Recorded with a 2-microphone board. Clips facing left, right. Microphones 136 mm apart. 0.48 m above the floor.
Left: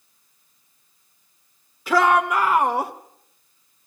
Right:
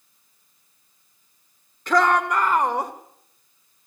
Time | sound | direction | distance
1.9 | a shout | 5° left (ahead or behind) | 1.1 m